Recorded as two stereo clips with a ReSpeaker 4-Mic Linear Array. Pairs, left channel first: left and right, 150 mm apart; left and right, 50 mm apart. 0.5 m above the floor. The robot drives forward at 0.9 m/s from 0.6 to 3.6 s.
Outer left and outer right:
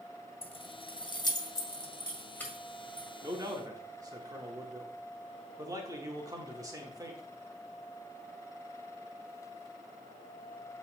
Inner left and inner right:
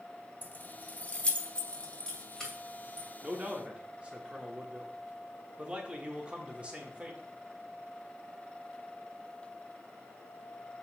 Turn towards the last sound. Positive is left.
turn(degrees=-25)  # may be behind; listen again after turning